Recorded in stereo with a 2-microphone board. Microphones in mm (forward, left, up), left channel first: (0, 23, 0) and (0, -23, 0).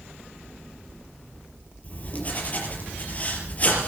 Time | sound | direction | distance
1.8 | writing | 35° left (ahead or behind) | 5 m